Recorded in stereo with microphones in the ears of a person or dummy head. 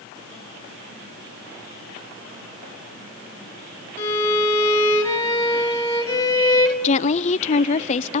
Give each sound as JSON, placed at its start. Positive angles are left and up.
{"t": 4.0, "sound": "a violin", "side_deg": 15, "distance_m": 3.5}
{"t": 6.8, "sound": "a woman speaking", "side_deg": 40, "distance_m": 0.8}